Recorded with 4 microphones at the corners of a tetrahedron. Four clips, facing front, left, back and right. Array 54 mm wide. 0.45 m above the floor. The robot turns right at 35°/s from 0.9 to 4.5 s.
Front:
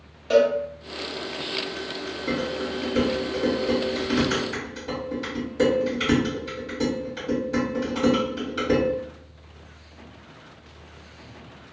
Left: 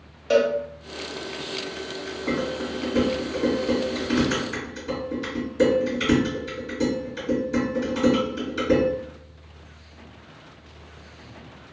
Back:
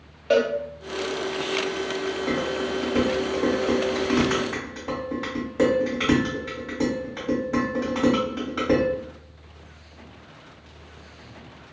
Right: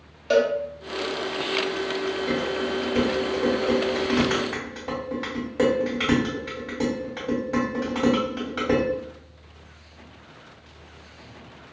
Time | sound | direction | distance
0.3 | a cowbell | 170° left | 0.5 m
2.3 | dishes clattering | 165° left | 1.5 m